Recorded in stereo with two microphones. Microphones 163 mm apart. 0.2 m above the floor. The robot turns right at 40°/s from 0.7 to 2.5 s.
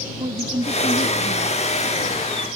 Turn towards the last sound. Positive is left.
turn(degrees=-20)